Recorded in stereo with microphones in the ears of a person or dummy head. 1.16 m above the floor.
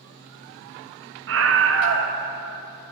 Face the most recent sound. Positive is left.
turn(degrees=-75)  # may be behind; listen again after turning